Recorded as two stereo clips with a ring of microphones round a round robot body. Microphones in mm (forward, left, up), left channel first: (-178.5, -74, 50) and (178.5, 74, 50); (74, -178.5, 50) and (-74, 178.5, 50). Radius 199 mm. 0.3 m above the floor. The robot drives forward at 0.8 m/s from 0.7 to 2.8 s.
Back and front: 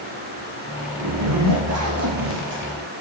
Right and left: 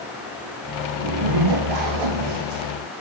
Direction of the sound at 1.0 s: 70° left.